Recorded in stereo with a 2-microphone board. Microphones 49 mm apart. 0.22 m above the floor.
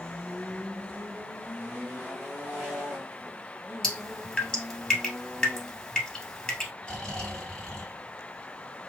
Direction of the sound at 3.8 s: 15° left (ahead or behind).